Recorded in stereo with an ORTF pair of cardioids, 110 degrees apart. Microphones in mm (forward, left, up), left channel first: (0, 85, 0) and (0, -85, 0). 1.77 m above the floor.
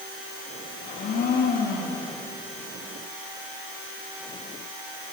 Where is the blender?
60° left, 4 m.